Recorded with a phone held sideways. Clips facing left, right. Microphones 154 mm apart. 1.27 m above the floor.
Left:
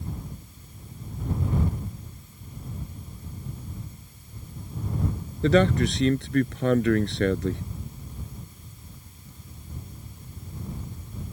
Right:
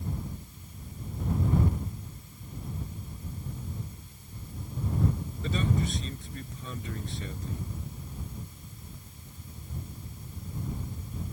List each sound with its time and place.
5.4 s a man speaking: 75° left (ahead or behind)